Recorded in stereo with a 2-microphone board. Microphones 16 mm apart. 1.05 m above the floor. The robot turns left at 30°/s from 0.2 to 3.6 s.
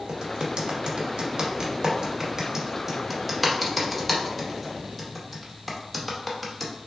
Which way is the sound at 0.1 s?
80° right.